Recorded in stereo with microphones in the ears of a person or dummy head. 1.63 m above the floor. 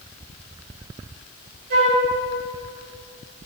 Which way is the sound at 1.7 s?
50° right (ahead or behind).